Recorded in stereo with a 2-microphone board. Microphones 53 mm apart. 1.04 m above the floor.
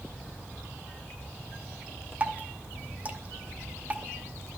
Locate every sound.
2.2 s dripping: 25° right (ahead or behind), 0.8 m